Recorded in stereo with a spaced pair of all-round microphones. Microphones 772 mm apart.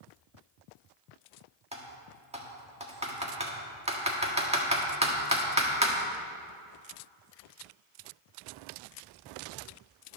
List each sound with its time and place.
1.7 s typing on a keyboard: 10° right (ahead or behind), 1.5 m